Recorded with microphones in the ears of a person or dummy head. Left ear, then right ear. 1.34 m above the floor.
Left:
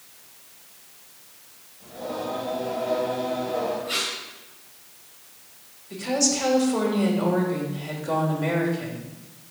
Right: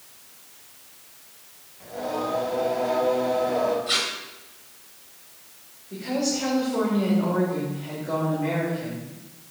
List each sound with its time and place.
1.8 s singing: 70° right (ahead or behind), 2.5 m
3.9 s tape being pulled: 40° right (ahead or behind), 2.5 m
5.9 s a woman speaking: 70° left (ahead or behind), 3.5 m